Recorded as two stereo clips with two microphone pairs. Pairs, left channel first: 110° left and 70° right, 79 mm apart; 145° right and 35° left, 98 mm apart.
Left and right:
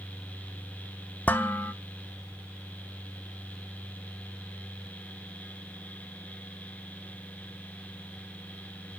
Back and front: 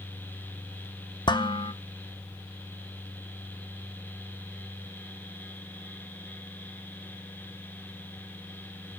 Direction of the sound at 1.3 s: 175° left.